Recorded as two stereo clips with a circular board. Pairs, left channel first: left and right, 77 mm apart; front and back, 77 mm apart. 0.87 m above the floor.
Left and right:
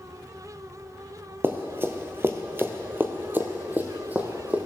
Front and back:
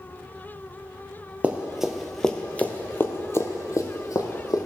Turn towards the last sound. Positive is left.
turn(degrees=-20)